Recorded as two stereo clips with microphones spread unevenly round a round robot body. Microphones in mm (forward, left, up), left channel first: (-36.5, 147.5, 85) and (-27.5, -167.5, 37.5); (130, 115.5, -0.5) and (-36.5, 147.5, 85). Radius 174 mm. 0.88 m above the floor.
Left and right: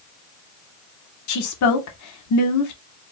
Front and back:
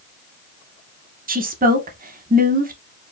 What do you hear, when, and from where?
1.3 s a woman speaking: 110° left, 0.8 m